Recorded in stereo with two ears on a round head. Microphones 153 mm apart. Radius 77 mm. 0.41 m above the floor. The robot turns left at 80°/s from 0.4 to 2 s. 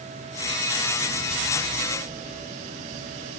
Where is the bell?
No bell in this recording.